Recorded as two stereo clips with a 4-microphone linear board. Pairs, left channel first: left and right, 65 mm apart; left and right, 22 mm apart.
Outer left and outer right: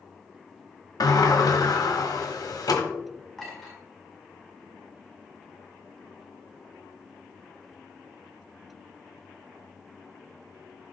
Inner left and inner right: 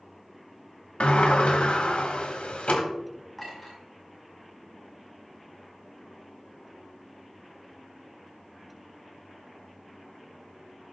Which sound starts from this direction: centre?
A clink, at 3.4 s.